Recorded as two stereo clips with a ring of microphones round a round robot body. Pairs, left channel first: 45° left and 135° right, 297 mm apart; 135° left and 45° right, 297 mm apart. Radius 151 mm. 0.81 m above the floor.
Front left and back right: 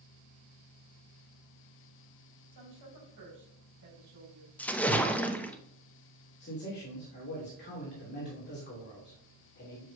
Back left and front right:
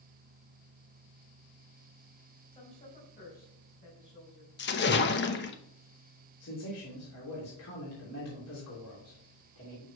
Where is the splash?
125° left, 0.8 m.